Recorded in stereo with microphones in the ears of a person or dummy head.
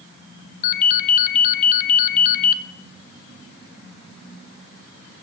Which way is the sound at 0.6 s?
50° left (ahead or behind).